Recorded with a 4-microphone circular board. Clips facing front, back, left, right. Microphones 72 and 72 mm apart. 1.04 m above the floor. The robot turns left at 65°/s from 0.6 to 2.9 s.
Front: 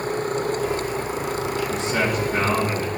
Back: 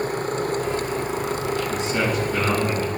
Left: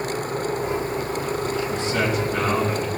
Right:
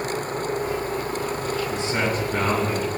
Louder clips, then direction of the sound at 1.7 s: Front 1 dB, left 1 dB; 10° right.